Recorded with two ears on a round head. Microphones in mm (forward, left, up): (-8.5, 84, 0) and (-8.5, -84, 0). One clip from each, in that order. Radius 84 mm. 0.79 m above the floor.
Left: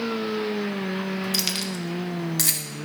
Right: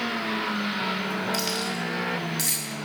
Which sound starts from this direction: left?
Keys jangling, at 1.3 s.